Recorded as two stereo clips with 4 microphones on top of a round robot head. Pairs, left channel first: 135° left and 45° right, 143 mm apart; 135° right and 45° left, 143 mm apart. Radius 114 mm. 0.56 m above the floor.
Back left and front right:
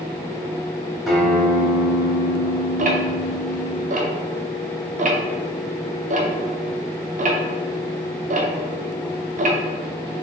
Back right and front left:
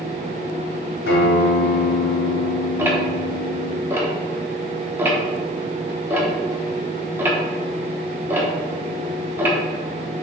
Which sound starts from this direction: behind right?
A guitar, at 1.1 s.